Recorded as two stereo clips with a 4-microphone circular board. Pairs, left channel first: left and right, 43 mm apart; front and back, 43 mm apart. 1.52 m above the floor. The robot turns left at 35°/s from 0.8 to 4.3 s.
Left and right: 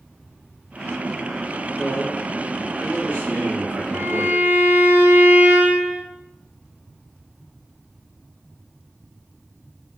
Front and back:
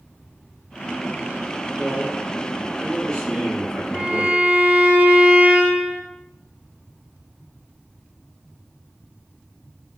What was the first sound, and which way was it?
A man speaking, 20° right.